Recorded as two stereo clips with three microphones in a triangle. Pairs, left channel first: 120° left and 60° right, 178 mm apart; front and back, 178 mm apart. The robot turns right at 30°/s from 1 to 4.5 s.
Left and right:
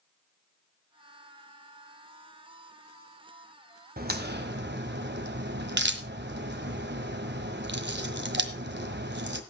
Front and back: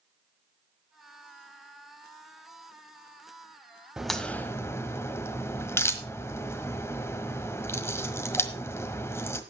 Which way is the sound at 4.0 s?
95° right.